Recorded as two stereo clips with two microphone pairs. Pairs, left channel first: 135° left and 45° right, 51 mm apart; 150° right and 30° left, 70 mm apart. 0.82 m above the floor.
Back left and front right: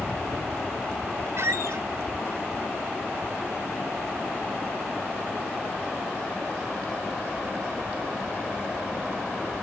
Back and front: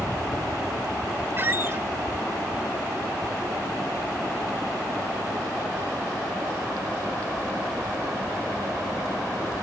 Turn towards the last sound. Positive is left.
turn(degrees=-25)